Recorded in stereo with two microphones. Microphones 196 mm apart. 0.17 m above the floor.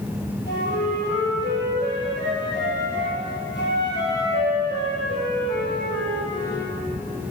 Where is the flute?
65° left (ahead or behind), 3.5 m.